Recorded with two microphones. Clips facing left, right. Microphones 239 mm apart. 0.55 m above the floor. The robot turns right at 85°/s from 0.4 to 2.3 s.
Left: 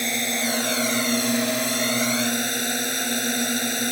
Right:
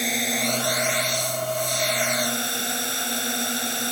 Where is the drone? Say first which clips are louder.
Even; straight ahead; by 3.9 s 160° left.